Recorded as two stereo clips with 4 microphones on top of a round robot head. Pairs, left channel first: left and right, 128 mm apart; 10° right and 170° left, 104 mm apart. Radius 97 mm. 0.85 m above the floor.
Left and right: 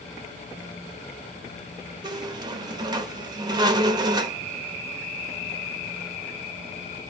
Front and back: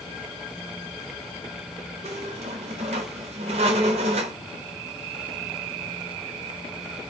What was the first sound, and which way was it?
A squeak, 145° right.